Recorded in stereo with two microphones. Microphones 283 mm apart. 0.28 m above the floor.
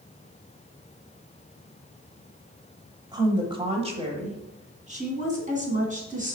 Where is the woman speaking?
15° right (ahead or behind), 1.2 m; by 6.4 s 30° right (ahead or behind), 3 m.